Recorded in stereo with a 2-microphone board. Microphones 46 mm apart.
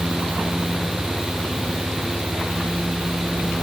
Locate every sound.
Only background noise.